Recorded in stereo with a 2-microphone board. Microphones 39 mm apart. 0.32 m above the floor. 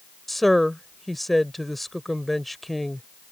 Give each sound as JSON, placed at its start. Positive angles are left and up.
{"t": 0.3, "sound": "a woman speaking", "side_deg": 5}